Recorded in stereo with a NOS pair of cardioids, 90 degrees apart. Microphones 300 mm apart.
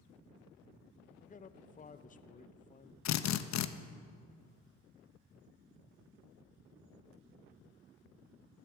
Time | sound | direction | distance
1.2 | a man speaking | 30° left | 0.7 m
3.0 | a drill | 65° left | 0.8 m